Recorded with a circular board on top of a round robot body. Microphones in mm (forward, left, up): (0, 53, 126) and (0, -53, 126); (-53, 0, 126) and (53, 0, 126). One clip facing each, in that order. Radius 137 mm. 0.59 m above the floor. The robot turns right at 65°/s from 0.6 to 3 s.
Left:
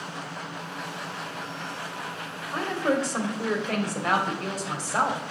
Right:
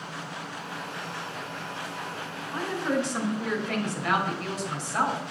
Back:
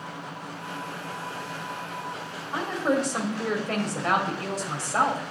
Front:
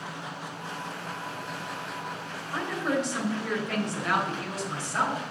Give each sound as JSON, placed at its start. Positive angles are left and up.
{"t": 2.5, "sound": "a woman speaking", "azimuth_deg": 105, "distance_m": 2.5}